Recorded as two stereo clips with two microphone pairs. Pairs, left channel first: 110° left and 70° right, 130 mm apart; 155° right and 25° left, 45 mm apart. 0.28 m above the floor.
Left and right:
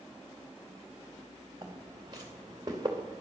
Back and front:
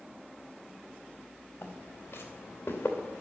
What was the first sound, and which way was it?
Footsteps, 130° right.